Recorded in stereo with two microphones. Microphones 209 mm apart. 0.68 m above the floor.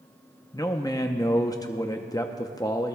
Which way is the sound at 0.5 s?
15° left (ahead or behind).